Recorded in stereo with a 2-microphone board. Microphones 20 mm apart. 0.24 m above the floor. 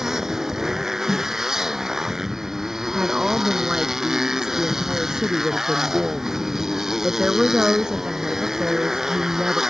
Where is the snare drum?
30° right (ahead or behind).